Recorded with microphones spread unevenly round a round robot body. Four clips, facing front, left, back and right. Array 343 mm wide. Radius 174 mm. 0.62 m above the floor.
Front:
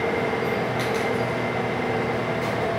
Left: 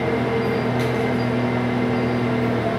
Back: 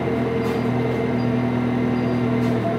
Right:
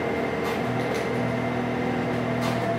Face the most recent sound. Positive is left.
turn(degrees=160)